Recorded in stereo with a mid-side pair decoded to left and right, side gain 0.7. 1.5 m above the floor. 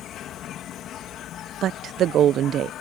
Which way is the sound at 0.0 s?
50° left.